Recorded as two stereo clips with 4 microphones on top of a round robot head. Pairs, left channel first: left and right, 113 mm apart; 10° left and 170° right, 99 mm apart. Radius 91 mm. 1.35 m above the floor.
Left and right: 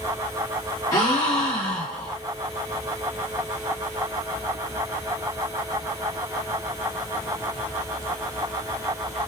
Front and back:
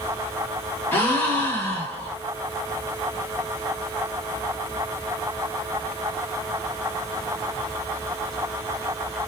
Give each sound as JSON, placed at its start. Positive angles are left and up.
{"t": 0.9, "sound": "a gasp", "azimuth_deg": 60, "distance_m": 0.8}